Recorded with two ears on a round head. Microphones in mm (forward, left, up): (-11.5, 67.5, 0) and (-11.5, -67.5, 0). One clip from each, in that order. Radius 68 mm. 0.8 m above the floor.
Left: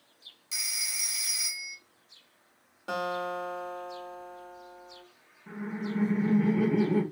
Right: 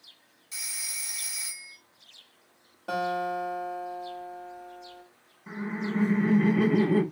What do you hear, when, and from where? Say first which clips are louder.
0.5 s a phone ringing: left 4 dB; 45° left (ahead or behind), 0.8 m
2.9 s a guitar: right 3 dB; 30° left (ahead or behind), 1.5 m
5.5 s laughter: right 3 dB; 25° right (ahead or behind), 0.8 m